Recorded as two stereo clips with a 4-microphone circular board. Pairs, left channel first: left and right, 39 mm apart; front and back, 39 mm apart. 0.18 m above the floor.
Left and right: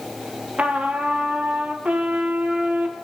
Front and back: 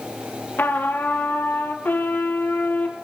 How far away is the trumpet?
About 2 m.